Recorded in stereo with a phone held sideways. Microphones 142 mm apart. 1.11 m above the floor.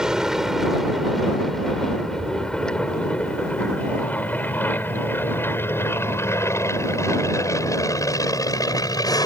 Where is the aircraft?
5° right (ahead or behind); by 9.3 s 25° left (ahead or behind).